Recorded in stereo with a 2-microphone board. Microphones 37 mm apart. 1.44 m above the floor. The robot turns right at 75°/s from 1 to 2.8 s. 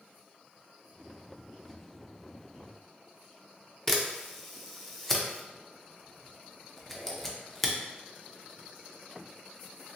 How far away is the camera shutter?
About 0.5 m.